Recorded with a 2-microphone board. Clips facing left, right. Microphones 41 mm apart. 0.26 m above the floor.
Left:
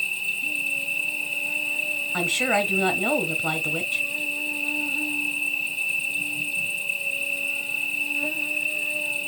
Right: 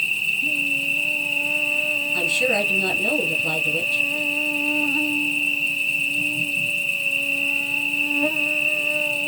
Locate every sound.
0.0 s an insect: 60° right (ahead or behind), 0.8 m
2.1 s a woman speaking: 45° left (ahead or behind), 1.9 m